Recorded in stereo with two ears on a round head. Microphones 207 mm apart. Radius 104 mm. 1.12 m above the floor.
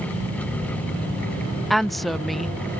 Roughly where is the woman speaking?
Centre.